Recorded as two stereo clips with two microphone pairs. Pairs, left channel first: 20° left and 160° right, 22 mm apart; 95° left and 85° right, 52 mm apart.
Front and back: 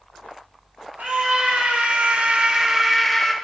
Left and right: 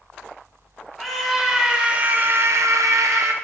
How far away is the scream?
About 2.0 m.